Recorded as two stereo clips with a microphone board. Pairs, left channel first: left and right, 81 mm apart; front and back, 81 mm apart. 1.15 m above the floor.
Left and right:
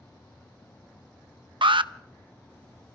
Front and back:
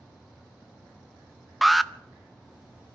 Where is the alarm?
90° right, 0.7 m.